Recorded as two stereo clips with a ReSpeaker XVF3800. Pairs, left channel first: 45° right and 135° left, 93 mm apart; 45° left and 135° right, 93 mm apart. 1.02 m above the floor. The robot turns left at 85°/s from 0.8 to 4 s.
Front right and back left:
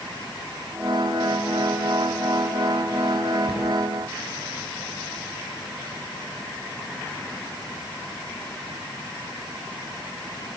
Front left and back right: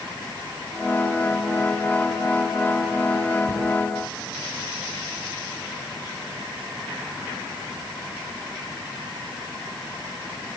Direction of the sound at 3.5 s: 85° right.